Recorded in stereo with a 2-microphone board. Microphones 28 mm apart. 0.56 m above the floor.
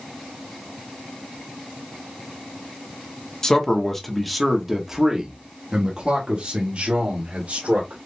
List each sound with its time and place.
3.4 s a man speaking: 15° left (ahead or behind), 1.3 m; by 8.0 s 60° right (ahead or behind), 2.5 m